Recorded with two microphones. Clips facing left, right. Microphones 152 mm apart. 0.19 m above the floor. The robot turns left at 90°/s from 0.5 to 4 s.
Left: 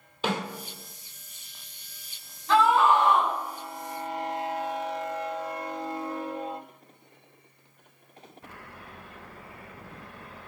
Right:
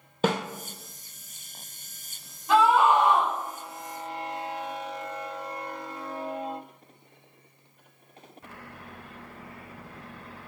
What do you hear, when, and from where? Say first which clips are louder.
0.2 s a snare drum: right 4 dB; 45° right (ahead or behind), 0.8 m
2.5 s a scream: right 1 dB; 10° right (ahead or behind), 1.3 m; by 3.3 s 20° right (ahead or behind), 1.3 m